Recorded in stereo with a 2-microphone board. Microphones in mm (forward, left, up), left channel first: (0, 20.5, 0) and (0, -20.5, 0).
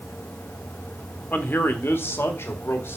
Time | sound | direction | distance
1.3 | a man speaking | 45° left (ahead or behind) | 1.5 m